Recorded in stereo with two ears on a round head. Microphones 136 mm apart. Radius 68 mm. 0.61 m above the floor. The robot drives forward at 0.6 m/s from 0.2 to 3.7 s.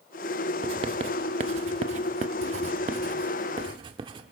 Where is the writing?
35° right (ahead or behind), 1.4 m.